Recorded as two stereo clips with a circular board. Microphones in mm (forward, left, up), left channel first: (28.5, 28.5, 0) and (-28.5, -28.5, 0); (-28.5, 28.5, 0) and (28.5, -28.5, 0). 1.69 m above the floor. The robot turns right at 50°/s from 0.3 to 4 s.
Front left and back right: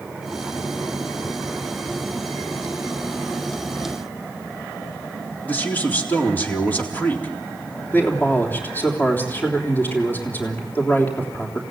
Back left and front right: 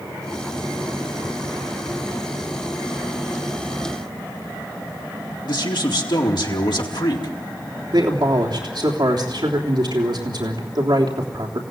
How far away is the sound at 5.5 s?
About 4 m.